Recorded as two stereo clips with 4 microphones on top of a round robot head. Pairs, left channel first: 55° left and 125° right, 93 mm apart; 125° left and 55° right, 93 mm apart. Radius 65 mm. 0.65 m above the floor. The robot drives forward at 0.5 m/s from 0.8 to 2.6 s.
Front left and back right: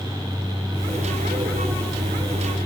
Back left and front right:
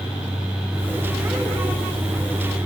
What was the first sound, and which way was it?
Only background noise.